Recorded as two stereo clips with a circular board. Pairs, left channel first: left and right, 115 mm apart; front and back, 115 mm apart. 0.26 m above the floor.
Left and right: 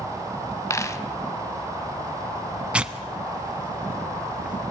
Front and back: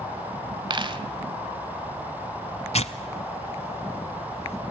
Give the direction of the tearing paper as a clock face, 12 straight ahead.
12 o'clock.